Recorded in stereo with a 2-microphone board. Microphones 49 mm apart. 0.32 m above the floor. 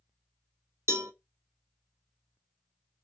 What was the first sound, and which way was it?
A cowbell, 70° right (ahead or behind).